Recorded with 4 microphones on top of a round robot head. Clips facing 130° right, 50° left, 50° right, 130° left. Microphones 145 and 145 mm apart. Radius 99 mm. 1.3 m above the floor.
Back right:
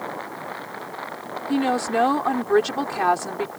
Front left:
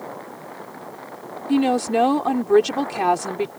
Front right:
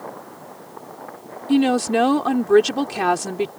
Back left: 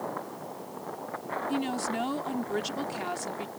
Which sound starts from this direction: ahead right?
A woman speaking, at 1.5 s.